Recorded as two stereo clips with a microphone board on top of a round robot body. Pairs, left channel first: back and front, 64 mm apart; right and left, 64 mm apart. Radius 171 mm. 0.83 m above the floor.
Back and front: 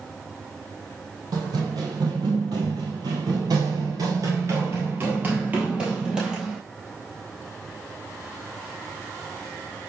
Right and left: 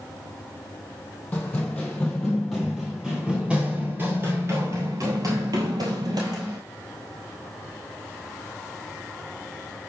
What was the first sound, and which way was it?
Running footsteps, 15° right.